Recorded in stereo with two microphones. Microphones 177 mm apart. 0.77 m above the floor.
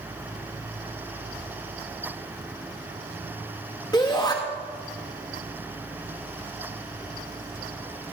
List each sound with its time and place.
3.9 s a shout: 20° left (ahead or behind), 1.3 m